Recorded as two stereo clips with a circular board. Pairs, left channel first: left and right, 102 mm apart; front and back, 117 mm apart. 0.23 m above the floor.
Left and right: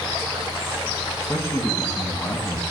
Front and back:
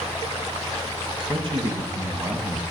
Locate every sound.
1.2 s a man speaking: 150° left, 1.9 m; by 2.6 s 115° left, 1.0 m